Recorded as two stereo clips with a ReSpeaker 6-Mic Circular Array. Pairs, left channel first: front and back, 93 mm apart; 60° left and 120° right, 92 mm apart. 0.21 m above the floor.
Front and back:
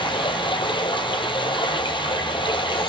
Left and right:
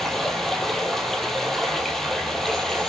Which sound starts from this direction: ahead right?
Running water, at 0.0 s.